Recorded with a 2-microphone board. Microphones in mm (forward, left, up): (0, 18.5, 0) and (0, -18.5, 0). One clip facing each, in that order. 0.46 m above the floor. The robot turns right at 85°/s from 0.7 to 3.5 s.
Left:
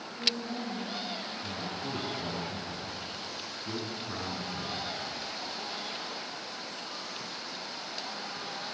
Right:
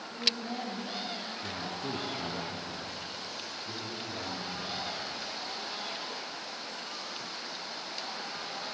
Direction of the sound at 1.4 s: 110° right.